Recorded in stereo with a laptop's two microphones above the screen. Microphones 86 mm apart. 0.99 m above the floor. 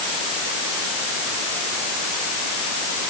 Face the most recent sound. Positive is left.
No sound to turn to.